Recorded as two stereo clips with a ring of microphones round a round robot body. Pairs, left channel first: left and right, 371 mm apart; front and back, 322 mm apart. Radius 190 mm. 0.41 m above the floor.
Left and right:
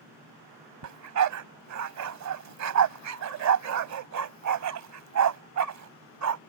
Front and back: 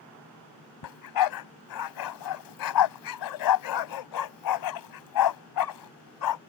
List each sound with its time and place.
0.8 s a dog barking: 40° right